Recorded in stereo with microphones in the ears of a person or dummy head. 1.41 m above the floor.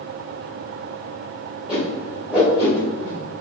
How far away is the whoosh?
About 3 m.